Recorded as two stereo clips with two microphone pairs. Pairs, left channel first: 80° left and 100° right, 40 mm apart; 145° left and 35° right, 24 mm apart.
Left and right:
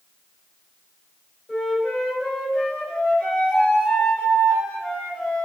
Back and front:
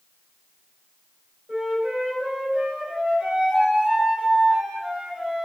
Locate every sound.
1.5 s a flute: 10° right, 3 m